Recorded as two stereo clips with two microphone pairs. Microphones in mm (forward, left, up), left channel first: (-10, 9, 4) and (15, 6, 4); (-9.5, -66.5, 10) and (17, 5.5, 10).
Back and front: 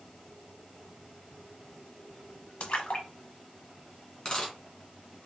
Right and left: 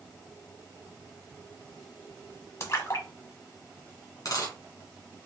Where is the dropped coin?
135° right, 2 m.